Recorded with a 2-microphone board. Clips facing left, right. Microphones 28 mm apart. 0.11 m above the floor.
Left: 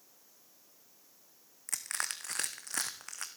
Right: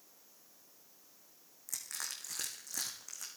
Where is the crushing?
70° left (ahead or behind), 1.5 m.